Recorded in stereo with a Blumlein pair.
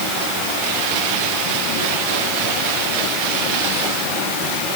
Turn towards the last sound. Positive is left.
No sound to turn to.